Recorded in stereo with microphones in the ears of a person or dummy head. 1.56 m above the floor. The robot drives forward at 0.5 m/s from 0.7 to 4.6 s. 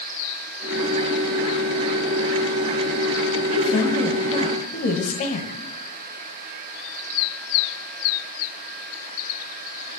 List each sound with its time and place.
3.5 s a woman speaking: 30° left (ahead or behind), 1.6 m; by 5.5 s 40° left (ahead or behind), 1.2 m